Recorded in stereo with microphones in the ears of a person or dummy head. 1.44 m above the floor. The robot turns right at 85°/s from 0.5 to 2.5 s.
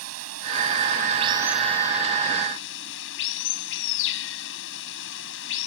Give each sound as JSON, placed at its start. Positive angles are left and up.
{"t": 0.0, "sound": "running water", "azimuth_deg": -95}